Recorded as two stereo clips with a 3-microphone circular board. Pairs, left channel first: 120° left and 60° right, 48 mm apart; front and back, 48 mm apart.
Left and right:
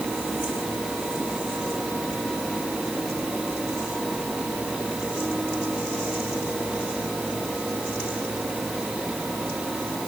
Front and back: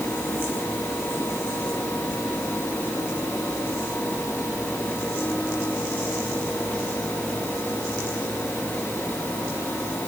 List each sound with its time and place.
Only background noise.